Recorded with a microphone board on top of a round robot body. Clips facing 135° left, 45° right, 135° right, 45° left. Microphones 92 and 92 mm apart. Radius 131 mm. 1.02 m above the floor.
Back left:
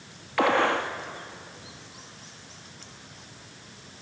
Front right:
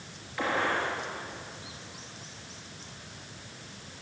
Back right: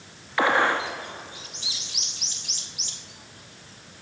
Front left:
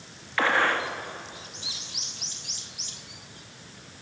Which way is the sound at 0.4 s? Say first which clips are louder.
Back left 6 dB, back right 2 dB; 150° left.